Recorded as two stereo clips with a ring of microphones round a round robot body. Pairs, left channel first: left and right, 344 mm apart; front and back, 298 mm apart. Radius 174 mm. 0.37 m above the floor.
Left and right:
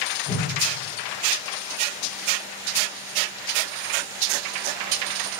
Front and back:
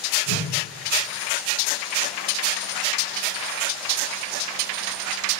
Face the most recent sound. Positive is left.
turn(degrees=20)